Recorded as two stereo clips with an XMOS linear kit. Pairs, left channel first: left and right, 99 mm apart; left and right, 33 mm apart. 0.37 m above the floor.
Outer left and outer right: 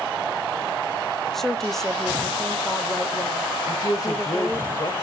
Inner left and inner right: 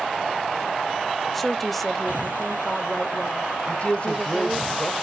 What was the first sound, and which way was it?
A woman speaking, 5° left (ahead or behind).